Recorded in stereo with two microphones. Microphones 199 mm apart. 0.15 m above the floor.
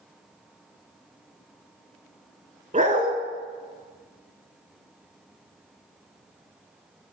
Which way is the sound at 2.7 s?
40° right (ahead or behind).